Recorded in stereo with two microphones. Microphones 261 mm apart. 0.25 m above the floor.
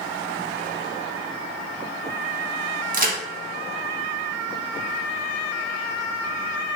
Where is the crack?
35° right (ahead or behind), 0.6 m.